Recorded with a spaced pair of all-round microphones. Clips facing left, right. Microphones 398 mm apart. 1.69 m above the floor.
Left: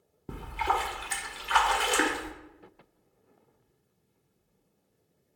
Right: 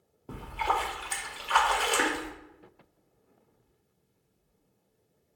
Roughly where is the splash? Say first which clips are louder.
Left 1 dB; left.